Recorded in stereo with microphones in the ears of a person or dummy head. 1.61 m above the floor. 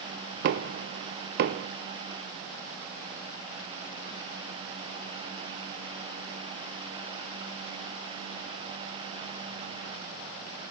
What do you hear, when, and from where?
0.4 s knocking: 55° right (ahead or behind), 0.6 m